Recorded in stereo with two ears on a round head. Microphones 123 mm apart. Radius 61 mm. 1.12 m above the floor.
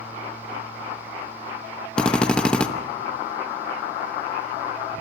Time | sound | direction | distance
2.0 | a drill | 5° left (ahead or behind) | 1.1 m